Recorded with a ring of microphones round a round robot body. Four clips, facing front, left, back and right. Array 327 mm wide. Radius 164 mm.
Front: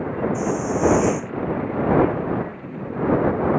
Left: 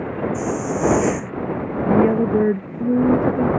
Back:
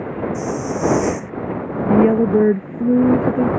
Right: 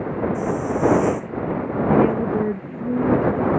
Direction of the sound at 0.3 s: 105° left.